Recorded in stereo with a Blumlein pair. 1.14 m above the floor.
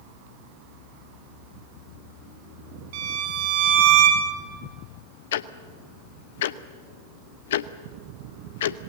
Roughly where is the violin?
Ahead right.